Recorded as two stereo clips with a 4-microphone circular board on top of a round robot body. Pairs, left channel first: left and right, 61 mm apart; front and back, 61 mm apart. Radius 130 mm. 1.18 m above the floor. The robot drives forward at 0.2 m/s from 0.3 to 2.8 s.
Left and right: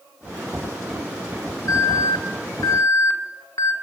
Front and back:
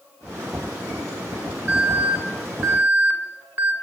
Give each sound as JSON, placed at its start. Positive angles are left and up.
{"t": 1.7, "sound": "an alarm", "azimuth_deg": 120, "distance_m": 4.0}